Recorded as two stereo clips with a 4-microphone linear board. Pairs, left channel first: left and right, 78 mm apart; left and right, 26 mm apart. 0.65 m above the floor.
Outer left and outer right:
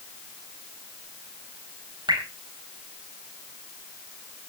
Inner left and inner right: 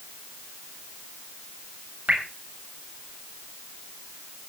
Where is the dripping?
75° right (ahead or behind), 4 m.